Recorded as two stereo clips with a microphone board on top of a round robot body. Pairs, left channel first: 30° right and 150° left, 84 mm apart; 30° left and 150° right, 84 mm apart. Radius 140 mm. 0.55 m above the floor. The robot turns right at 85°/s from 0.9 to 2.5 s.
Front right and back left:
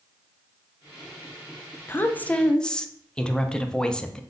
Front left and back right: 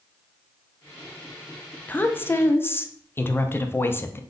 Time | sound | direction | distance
1.9 | a woman speaking | 15° right | 0.6 m